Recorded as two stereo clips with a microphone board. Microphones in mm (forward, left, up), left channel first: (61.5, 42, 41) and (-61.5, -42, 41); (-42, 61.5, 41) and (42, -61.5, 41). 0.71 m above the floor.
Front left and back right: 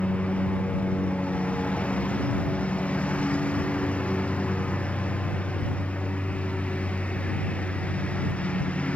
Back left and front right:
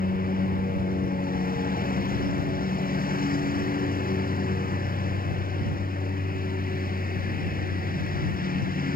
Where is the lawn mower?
115° left.